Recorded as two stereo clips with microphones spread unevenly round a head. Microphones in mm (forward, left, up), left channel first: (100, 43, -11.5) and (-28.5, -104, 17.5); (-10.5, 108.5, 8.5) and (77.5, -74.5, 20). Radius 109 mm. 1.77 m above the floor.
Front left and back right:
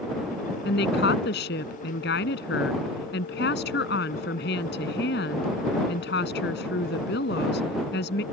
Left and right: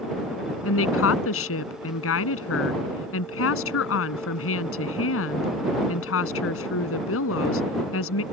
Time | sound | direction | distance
0.7 | a woman speaking | 100° left | ?